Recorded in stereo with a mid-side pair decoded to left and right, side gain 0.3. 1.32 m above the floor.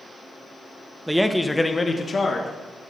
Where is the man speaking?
10° right, 0.9 m; by 2.5 s 60° left, 1.7 m.